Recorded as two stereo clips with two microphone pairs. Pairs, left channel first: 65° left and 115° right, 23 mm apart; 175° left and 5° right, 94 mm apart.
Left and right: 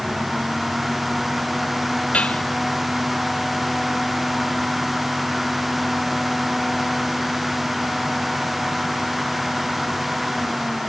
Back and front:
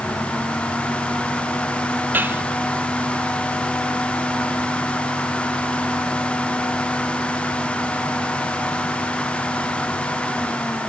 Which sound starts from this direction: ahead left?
Dishes clattering, at 2.1 s.